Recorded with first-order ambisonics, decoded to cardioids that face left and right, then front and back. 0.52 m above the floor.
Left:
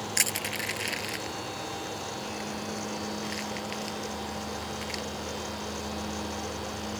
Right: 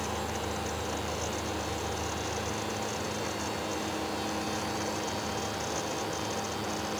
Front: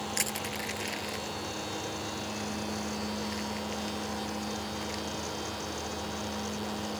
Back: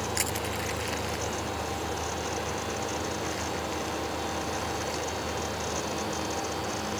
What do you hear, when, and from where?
0.2 s crushing: 90° left